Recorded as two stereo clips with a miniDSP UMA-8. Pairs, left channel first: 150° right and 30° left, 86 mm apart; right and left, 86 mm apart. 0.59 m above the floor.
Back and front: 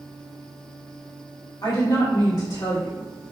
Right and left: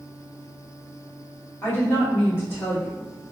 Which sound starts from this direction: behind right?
A woman speaking, at 1.6 s.